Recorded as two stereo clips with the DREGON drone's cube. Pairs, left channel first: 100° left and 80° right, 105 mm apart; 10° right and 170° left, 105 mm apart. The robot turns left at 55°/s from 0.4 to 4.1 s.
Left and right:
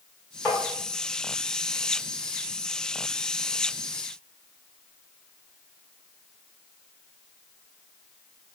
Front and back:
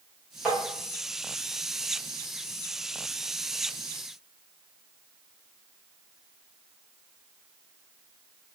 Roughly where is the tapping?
Left.